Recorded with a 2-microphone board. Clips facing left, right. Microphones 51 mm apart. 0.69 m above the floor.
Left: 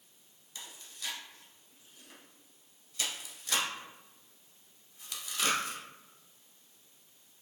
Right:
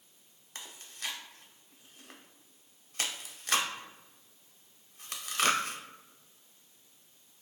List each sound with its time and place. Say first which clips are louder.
0.6 s chewing: right 2 dB; 55° right (ahead or behind), 0.6 m